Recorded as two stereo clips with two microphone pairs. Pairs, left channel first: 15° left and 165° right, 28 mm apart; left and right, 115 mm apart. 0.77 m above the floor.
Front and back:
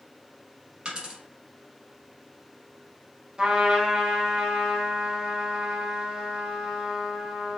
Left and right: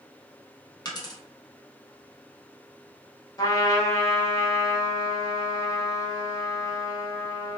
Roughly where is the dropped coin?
Behind left.